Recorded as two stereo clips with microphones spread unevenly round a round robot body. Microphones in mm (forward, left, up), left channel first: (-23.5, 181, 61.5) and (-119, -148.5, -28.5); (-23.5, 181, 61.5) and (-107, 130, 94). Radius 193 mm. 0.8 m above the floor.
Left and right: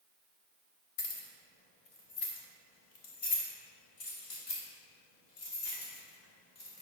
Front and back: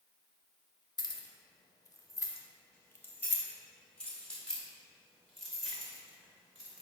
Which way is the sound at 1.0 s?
65° left.